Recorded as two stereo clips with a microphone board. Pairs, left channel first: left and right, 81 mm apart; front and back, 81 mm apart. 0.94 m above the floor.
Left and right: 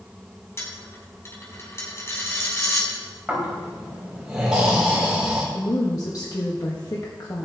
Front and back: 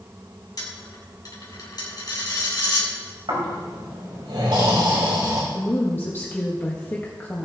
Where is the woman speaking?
60° left, 1.6 m.